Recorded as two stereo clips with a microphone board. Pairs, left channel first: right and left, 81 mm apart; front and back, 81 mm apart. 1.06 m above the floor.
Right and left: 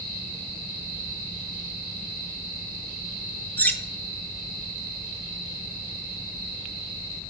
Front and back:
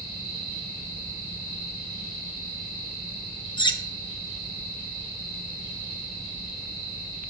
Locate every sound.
3.6 s cutlery clinking: 20° right, 0.5 m